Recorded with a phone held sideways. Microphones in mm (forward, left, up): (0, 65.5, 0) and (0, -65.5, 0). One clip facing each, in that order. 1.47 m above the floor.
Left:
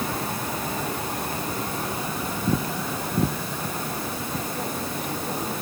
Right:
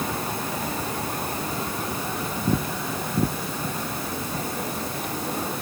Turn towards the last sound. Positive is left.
No sound to turn to.